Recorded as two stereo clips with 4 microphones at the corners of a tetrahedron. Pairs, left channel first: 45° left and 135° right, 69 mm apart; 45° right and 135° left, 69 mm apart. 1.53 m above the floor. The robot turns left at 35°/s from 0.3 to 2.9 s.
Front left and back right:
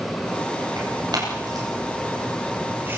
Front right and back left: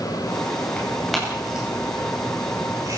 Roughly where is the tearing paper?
Behind right.